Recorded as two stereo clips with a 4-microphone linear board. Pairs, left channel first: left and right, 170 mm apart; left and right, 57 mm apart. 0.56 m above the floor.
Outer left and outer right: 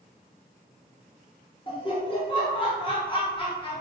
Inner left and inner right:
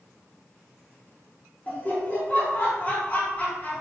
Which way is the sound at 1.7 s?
30° left (ahead or behind).